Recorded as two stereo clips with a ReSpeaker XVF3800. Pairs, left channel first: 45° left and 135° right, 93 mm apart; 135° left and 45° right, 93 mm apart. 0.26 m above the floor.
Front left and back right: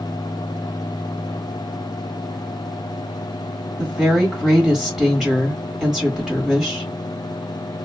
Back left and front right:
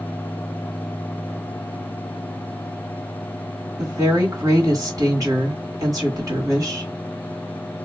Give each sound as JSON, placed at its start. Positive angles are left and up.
{"t": 3.8, "sound": "a woman speaking", "azimuth_deg": -60, "distance_m": 1.3}